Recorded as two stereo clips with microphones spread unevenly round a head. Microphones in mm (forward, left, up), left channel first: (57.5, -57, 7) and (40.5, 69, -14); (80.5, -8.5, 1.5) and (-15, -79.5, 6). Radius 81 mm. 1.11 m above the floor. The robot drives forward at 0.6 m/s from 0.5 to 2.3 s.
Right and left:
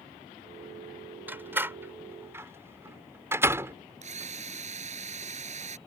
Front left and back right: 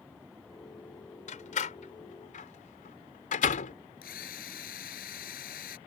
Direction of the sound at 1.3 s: 20° left.